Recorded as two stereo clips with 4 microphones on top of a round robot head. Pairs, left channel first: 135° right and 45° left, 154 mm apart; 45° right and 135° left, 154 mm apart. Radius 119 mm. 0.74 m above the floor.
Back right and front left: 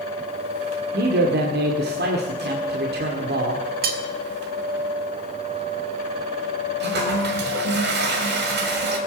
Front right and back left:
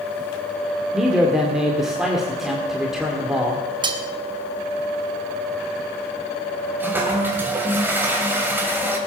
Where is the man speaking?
45° left, 1.9 m.